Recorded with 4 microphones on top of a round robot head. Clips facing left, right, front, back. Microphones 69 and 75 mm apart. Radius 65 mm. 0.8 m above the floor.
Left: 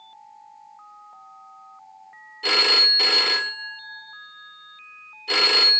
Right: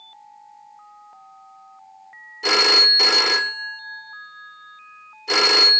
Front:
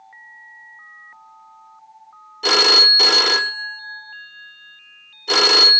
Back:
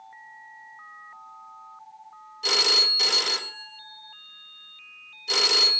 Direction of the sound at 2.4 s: 20° right.